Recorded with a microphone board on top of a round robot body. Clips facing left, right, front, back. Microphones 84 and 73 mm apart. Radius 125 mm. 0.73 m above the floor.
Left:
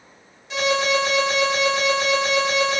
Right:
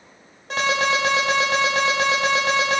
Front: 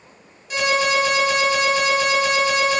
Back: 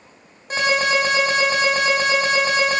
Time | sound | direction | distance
0.5 | an alarm | 130° right | 7 m